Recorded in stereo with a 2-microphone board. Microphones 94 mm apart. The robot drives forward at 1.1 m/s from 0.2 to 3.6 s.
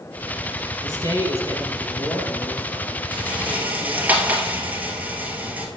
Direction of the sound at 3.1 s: 15° right (ahead or behind).